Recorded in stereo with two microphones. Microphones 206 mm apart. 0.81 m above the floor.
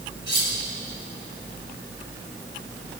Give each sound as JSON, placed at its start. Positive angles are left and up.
{"t": 0.3, "sound": "cutlery clinking", "side_deg": 60, "distance_m": 2.0}